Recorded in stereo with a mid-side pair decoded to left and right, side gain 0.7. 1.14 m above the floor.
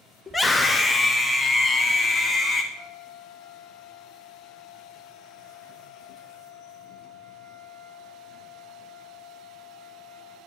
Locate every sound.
0.3 s a scream: 5° left, 1.5 m; by 2.6 s 15° left, 3 m
2.7 s a flute: 50° right, 2.5 m